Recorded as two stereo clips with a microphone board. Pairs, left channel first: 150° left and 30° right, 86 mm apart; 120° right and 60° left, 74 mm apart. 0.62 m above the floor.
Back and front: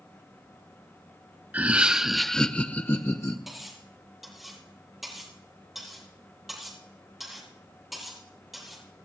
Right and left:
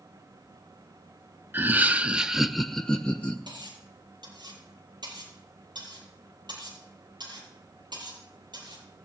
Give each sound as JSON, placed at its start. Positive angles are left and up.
{"t": 1.5, "sound": "laughter", "azimuth_deg": 25, "distance_m": 0.8}
{"t": 3.5, "sound": "cutlery clinking", "azimuth_deg": 60, "distance_m": 9.0}